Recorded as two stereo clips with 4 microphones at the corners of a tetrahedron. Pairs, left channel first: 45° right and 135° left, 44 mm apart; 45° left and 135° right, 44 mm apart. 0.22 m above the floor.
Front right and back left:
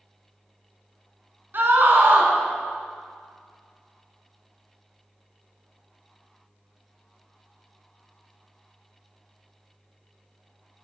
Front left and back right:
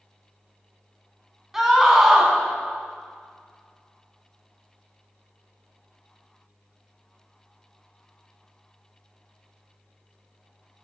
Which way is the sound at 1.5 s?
145° left.